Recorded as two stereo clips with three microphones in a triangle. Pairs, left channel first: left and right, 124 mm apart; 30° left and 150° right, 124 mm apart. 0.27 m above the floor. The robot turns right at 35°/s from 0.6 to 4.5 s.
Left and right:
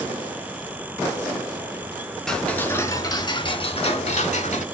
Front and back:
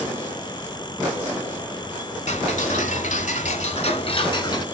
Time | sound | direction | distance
2.3 | ticking | 5° left | 0.7 m